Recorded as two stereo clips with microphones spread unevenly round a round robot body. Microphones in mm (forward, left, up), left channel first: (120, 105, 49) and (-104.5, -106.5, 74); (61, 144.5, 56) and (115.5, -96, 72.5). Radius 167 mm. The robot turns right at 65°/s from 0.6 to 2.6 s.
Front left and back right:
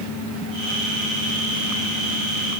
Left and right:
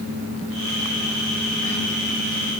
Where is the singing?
I don't hear singing.